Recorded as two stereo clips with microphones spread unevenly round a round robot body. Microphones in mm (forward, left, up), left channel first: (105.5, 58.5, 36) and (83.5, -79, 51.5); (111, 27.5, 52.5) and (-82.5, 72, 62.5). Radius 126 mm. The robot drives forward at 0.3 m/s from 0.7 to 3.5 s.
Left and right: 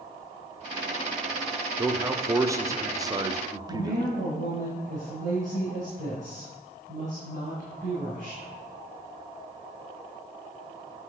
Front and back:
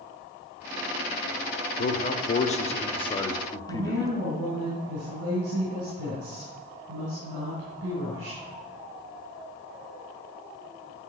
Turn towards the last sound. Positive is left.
turn(degrees=-155)